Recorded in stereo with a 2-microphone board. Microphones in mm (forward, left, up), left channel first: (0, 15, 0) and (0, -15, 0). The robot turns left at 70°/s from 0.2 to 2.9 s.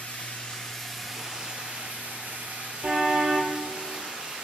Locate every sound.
0.0 s running water: 55° left, 9 m; by 4.5 s 135° right, 9 m
2.8 s a car horn: 65° right (ahead or behind), 5 m; by 3.5 s 60° right (ahead or behind), 5 m